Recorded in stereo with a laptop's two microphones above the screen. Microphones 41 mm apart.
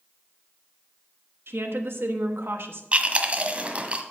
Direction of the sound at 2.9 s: 30° right (ahead or behind).